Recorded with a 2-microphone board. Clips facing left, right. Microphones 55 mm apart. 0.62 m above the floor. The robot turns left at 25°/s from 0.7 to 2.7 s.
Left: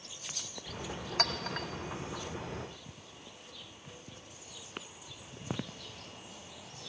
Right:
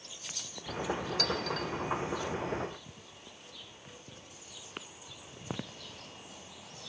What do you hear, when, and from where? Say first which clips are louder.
1.2 s a clink: right 2 dB; 50° left (ahead or behind), 0.5 m; by 1.7 s 40° left (ahead or behind), 0.5 m